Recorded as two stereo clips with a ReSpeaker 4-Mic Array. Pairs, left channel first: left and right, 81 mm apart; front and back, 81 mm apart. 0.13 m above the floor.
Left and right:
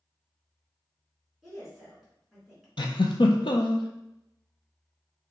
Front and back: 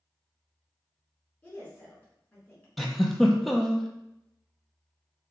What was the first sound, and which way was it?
A woman speaking, 5° right.